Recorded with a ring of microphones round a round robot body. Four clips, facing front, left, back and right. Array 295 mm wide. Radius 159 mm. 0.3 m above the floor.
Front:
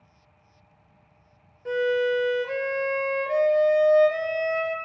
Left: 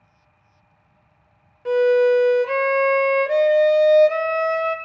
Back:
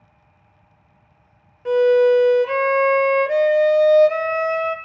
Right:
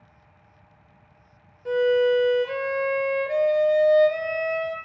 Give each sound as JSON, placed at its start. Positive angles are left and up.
{"t": 1.6, "sound": "a violin", "azimuth_deg": 140, "distance_m": 1.1}